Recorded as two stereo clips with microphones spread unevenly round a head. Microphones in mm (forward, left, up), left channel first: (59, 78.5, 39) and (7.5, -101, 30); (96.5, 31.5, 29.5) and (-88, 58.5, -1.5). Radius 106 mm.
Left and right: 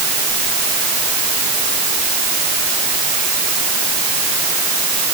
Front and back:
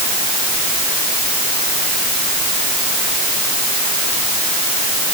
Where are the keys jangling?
No keys jangling in this recording.